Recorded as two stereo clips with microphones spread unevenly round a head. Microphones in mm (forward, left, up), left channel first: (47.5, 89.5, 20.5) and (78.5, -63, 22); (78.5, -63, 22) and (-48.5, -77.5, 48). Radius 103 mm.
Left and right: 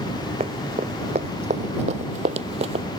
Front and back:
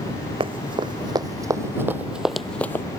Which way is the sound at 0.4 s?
140° right.